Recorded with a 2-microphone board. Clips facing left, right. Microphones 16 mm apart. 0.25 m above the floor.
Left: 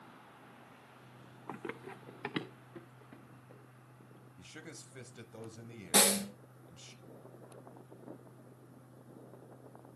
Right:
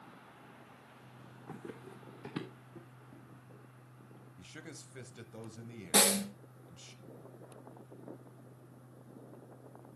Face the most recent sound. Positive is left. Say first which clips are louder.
# even
turn(degrees=-5)  # may be behind; listen again after turning